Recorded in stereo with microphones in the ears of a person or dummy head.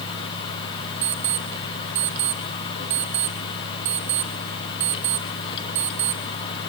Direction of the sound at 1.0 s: 15° right (ahead or behind).